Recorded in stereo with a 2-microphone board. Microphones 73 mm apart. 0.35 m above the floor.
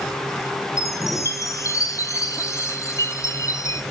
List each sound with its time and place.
0.8 s a chime: 50° left (ahead or behind), 1.5 m